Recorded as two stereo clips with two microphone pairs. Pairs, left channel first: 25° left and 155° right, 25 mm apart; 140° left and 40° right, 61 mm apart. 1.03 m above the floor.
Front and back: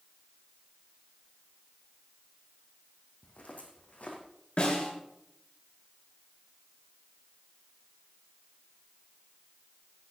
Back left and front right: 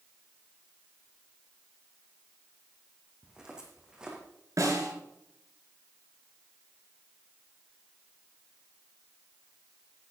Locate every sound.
3.2 s footsteps: 40° left, 2.5 m
4.6 s a snare drum: 15° right, 4.5 m